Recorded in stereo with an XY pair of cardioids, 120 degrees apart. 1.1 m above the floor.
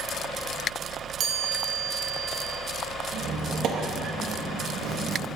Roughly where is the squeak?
Ahead right.